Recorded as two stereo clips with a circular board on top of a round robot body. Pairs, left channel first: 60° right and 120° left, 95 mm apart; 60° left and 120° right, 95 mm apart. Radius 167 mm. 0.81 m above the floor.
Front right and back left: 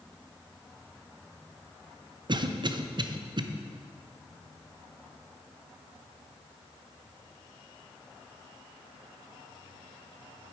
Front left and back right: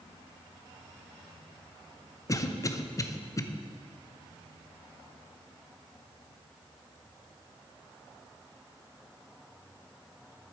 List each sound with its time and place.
2.3 s a cough: 105° left, 0.9 m